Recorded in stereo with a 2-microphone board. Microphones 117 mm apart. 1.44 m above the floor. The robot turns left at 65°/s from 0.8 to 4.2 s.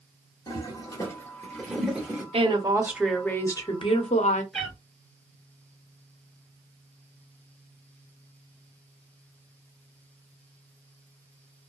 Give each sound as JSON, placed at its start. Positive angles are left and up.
{"t": 0.5, "sound": "a toilet flushing", "side_deg": 30, "distance_m": 1.1}
{"t": 2.3, "sound": "a woman speaking", "azimuth_deg": -130, "distance_m": 0.8}
{"t": 4.5, "sound": "a cat meowing", "side_deg": 5, "distance_m": 1.5}